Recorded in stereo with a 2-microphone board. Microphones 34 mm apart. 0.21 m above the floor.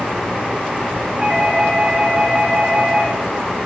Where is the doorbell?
15° right (ahead or behind), 2.5 m.